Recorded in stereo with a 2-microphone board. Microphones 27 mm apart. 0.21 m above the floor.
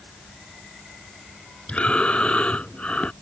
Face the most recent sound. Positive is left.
turn(degrees=50)  # may be behind; listen again after turning